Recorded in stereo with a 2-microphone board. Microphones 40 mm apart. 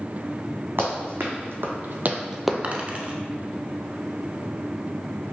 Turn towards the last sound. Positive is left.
turn(degrees=-35)  # may be behind; listen again after turning